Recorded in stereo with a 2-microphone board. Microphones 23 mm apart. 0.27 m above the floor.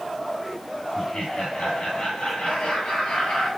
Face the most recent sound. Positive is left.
turn(degrees=65)  # may be behind; listen again after turning